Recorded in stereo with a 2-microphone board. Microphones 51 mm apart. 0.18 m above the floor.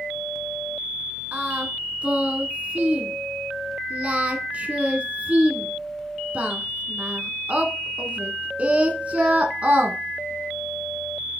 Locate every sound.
1.3 s singing: 30° right (ahead or behind), 1.1 m